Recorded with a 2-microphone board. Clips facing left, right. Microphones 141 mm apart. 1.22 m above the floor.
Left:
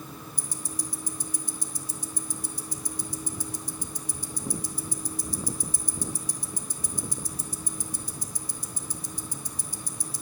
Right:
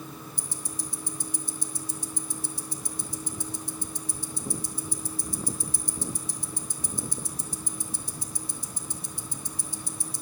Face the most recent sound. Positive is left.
turn(degrees=-25)  # may be behind; listen again after turning